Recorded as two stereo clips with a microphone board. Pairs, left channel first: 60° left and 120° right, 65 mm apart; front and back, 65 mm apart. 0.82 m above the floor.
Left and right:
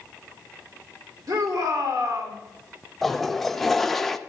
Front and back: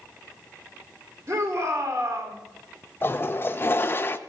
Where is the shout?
145° right, 2.5 m.